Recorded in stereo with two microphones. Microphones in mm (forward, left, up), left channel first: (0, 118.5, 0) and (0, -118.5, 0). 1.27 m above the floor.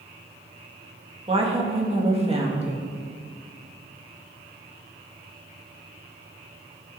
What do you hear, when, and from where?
1.3 s a woman speaking: 25° right (ahead or behind), 2 m